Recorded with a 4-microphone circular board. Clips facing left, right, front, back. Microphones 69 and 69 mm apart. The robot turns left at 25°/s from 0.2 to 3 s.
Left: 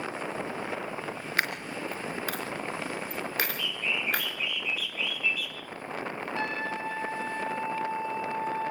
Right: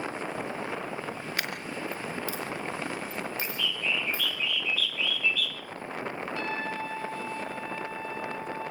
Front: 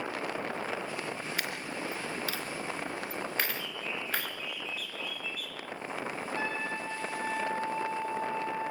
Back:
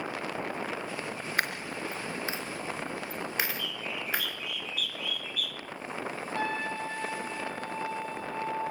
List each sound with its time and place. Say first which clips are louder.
1.4 s a dropped coin: left 6 dB, back 4 dB; 145° left, 4 m; by 4.4 s 105° left, 4 m
3.4 s a bird: right 1 dB, back 1 dB; 165° left, 2.0 m
6.3 s a trumpet: left 2 dB, back 4 dB; 150° left, 4.5 m